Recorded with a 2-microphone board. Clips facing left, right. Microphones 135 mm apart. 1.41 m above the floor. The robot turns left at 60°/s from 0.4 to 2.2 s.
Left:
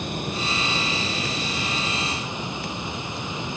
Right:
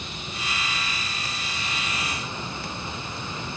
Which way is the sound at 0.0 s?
125° left.